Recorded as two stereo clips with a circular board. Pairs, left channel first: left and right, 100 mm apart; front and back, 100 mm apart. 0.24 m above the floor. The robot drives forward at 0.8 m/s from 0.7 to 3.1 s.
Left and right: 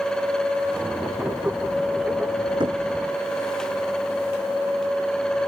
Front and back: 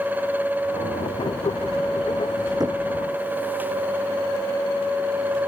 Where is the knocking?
130° right.